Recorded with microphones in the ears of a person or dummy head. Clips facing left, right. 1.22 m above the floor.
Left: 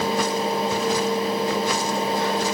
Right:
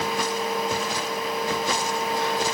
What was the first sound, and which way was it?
Only background noise.